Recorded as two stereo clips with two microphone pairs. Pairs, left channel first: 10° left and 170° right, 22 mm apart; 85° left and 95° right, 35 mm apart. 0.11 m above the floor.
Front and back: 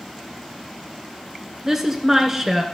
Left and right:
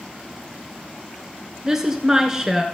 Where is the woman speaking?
145° right, 1.2 m.